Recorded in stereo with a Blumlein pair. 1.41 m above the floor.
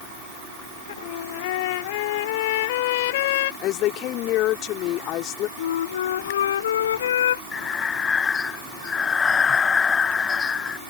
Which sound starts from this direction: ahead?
Breathing, at 7.5 s.